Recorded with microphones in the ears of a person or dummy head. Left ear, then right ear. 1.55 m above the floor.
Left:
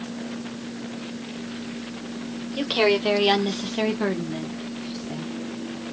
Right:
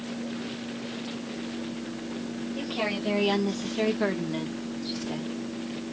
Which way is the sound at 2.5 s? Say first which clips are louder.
Left 10 dB; 50° left (ahead or behind).